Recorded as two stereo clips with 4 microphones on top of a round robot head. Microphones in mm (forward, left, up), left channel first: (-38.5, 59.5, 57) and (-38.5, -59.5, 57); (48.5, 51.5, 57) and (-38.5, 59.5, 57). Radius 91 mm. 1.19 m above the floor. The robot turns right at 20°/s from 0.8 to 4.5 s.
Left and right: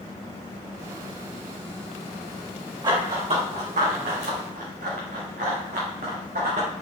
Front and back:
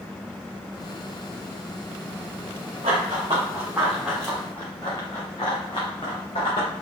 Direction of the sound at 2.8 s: 140° right.